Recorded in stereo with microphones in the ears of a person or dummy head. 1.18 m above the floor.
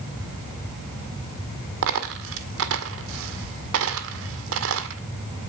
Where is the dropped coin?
75° right (ahead or behind), 1.8 m.